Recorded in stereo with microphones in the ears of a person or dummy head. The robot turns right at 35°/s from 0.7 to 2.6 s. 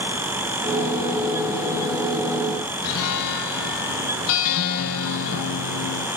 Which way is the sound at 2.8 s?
70° left (ahead or behind).